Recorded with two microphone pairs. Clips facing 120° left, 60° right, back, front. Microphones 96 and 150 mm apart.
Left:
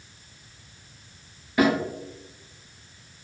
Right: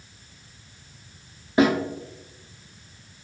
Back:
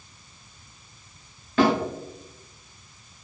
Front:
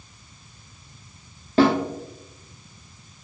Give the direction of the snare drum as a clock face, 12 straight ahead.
1 o'clock.